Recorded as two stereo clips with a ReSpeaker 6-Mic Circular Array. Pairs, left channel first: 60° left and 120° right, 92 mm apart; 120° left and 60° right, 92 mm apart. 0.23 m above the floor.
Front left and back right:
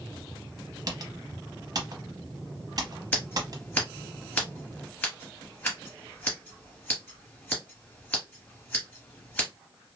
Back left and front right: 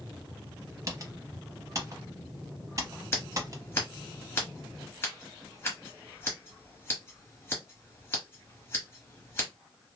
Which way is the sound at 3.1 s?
100° left.